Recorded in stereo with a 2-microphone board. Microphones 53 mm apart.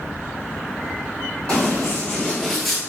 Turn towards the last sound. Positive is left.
turn(degrees=-5)  # may be behind; listen again after turning